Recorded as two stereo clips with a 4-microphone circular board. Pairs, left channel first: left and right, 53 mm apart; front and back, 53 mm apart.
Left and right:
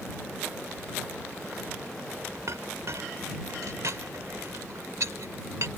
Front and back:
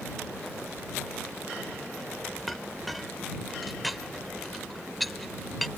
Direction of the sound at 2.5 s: 90° right.